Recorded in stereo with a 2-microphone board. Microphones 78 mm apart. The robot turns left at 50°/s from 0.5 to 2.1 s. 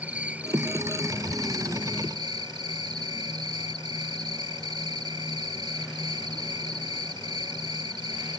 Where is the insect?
20° right; by 8.4 s 100° right.